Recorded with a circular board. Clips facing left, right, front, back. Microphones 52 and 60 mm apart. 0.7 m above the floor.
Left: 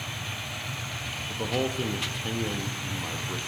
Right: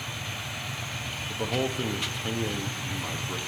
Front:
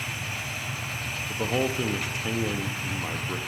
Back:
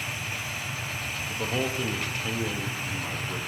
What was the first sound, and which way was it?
A man speaking, 5° right.